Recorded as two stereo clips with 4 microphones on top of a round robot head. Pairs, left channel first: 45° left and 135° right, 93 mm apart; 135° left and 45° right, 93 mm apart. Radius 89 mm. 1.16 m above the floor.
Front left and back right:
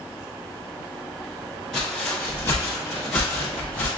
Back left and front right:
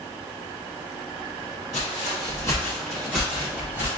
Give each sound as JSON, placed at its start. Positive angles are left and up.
{"t": 1.7, "sound": "footsteps", "azimuth_deg": 135, "distance_m": 1.3}